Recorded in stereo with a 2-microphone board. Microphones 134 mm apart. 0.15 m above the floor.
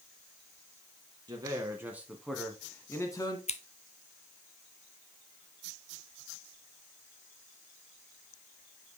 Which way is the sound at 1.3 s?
30° right (ahead or behind).